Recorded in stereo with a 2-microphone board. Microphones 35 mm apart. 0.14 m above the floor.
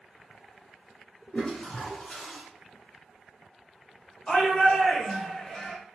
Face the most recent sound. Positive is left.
turn(degrees=25)  # may be behind; listen again after turning